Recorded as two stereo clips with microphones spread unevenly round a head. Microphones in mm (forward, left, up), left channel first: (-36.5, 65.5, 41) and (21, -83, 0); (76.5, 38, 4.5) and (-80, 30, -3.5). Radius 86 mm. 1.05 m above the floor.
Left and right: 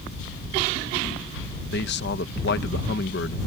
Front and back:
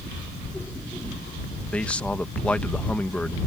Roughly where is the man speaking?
Left.